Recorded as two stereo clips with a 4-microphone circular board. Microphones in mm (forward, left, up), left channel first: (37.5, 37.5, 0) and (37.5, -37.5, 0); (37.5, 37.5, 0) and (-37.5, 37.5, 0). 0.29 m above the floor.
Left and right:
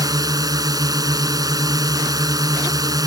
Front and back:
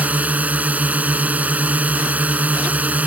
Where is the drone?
110° right.